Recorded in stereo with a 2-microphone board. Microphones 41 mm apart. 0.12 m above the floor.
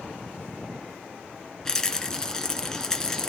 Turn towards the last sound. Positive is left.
turn(degrees=15)  # may be behind; listen again after turning